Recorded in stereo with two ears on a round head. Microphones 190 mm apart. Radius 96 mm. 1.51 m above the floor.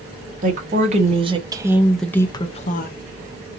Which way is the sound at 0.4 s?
40° right (ahead or behind).